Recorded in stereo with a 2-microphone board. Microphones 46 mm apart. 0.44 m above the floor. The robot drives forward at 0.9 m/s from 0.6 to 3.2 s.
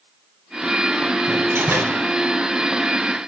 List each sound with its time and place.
1.3 s a door slam: 75° right (ahead or behind), 4.5 m; by 2.0 s 65° right (ahead or behind), 4.5 m